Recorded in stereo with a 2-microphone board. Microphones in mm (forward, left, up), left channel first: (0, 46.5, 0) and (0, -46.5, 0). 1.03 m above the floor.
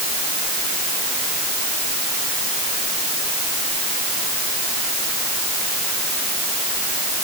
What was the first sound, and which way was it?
Only background noise.